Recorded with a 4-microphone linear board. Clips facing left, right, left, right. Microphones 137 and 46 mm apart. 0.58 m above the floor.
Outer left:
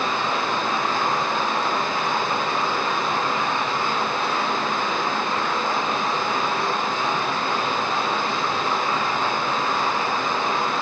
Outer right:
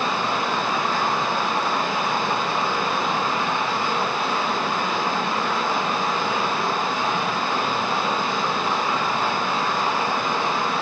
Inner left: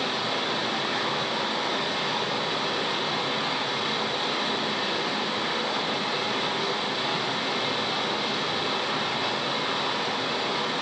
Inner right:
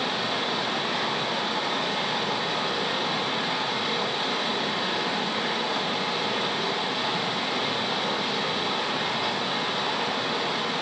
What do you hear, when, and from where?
0.0 s running water: 5° right (ahead or behind), 3.5 m